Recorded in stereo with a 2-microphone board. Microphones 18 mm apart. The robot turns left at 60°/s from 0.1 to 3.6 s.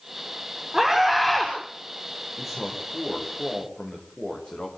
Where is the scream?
140° right, 7 m; by 1.5 s 170° left, 7 m.